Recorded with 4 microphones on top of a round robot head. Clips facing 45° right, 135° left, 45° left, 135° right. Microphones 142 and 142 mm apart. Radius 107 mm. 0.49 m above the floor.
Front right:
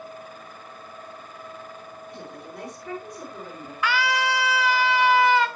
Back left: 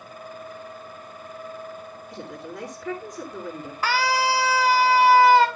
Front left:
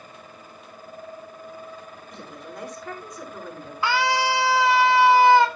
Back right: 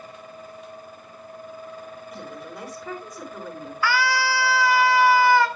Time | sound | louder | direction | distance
2.1 | a woman speaking | back left 4 dB, back right 1 dB | 135° left | 6.5 m
3.8 | a scream | back left 2 dB, front left 1 dB | 100° left | 1.7 m